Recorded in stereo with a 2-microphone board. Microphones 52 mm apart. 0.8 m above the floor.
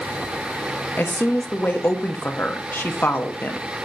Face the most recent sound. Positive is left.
turn(degrees=40)  # may be behind; listen again after turning